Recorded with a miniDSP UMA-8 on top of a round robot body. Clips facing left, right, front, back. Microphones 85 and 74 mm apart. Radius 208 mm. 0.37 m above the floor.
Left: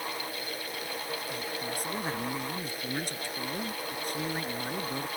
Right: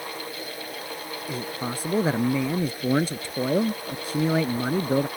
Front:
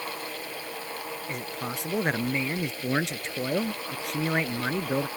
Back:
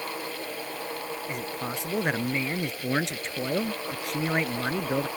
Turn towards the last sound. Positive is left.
turn(degrees=-90)